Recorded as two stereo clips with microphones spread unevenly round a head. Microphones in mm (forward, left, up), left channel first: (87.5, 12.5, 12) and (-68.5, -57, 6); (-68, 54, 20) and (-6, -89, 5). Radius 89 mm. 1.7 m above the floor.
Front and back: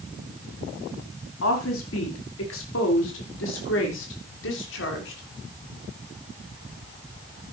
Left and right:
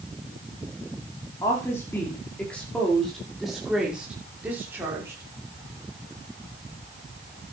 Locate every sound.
1.4 s a woman speaking: 40° left, 5 m; by 5.2 s 10° left, 6.5 m